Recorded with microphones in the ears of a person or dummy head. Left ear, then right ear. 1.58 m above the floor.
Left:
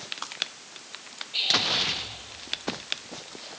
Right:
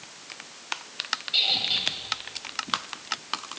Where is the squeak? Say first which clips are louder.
Even; 70° right (ahead or behind), 3 m.